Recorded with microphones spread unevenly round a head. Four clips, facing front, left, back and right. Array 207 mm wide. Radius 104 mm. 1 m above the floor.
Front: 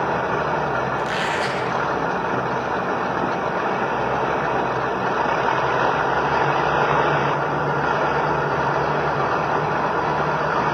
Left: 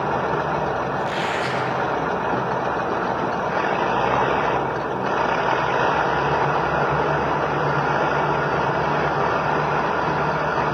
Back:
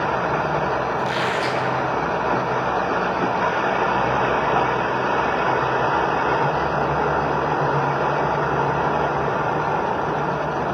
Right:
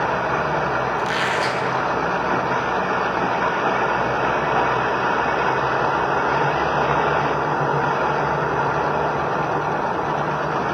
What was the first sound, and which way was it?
A squeak, 75° right.